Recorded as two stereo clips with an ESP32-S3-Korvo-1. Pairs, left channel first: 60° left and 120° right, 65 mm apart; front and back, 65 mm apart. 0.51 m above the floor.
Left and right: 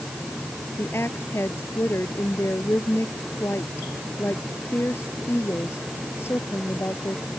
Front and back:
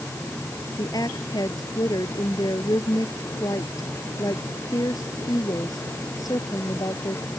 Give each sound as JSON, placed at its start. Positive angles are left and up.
{"t": 0.8, "sound": "a woman speaking", "azimuth_deg": 10}